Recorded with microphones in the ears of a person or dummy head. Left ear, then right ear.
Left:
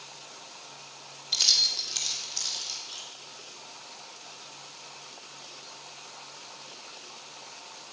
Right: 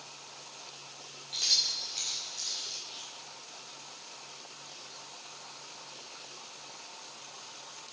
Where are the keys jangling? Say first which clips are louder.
Left 5 dB; 75° left (ahead or behind), 2.5 m; by 3.0 s 85° left, 4 m.